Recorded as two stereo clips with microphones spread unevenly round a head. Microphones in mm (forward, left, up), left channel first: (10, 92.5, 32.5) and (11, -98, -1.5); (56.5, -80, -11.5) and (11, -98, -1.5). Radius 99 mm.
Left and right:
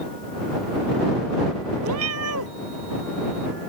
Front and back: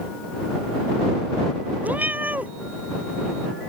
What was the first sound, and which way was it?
A cat meowing, 105° right.